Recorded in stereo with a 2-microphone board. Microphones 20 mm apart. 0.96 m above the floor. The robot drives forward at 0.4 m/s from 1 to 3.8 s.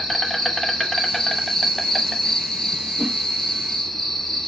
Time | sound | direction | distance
0.0 | an insect | 10° left (ahead or behind) | 0.8 m
3.0 | a whoosh | 70° right (ahead or behind) | 0.8 m